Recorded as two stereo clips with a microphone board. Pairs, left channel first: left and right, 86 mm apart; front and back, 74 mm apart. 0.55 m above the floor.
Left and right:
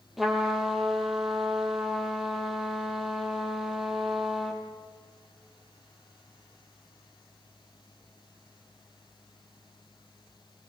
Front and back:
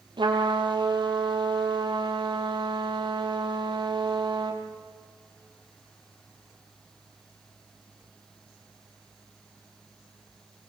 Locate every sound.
0.2 s a trumpet: straight behind, 3.5 m